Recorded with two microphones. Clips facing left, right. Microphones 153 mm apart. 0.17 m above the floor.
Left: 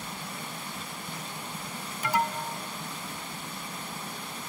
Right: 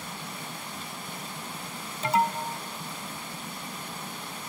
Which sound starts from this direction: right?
An alarm, at 2.0 s.